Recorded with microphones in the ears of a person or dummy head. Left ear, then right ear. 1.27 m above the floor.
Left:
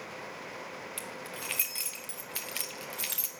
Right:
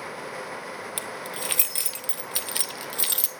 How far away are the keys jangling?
About 0.5 m.